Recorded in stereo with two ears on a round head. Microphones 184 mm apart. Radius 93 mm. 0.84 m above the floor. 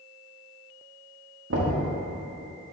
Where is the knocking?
60° right (ahead or behind), 1.3 m.